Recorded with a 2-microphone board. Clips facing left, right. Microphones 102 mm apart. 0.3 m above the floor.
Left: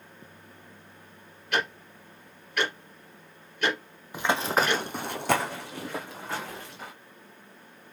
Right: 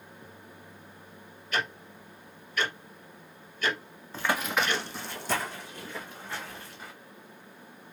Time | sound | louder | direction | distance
1.5 | ticking | left 3 dB | 75° left (ahead or behind) | 2 m
4.1 | running footsteps | left 3 dB | 15° left (ahead or behind) | 0.6 m